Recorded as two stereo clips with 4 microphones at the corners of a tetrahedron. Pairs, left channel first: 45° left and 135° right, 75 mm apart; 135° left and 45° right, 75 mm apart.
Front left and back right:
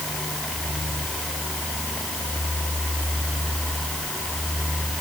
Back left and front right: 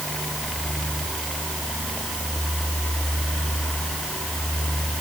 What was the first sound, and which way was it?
Only background noise.